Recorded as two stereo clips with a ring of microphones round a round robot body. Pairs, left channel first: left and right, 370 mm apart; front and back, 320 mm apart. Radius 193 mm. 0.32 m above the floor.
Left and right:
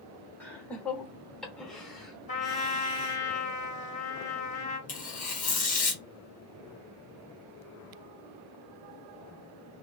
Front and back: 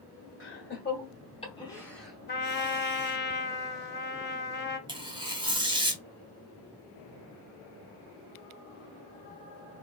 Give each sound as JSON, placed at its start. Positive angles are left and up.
{"t": 0.4, "sound": "laughter", "azimuth_deg": 5, "distance_m": 1.4}
{"t": 2.3, "sound": "a trumpet", "azimuth_deg": 35, "distance_m": 1.2}
{"t": 4.9, "sound": "tearing paper", "azimuth_deg": 125, "distance_m": 1.3}